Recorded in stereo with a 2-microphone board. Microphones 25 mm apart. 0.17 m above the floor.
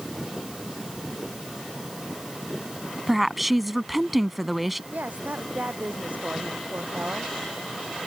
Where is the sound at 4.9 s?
80° right.